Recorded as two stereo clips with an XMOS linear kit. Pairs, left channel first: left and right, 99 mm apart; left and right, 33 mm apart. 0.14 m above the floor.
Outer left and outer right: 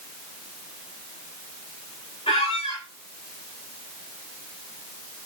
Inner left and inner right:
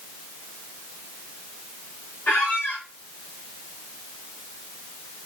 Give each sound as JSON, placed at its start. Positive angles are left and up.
{"t": 2.3, "sound": "a squeak", "side_deg": 80, "distance_m": 4.5}